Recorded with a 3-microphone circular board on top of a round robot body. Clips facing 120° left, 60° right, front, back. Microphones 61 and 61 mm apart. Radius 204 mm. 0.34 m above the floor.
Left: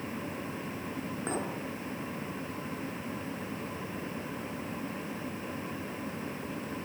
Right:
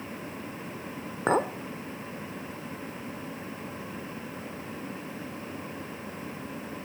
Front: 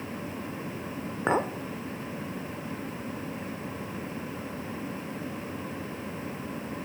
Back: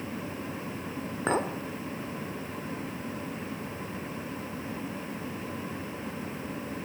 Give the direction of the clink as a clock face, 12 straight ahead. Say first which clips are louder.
Right 11 dB, front 2 dB; 2 o'clock.